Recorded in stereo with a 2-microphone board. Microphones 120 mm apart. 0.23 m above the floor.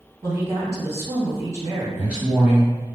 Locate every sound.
0.2 s a woman speaking: 25° right (ahead or behind), 1.7 m
1.9 s a man speaking: 10° right (ahead or behind), 1.5 m